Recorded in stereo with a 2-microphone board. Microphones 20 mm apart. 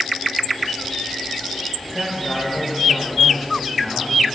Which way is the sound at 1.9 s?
5° left (ahead or behind).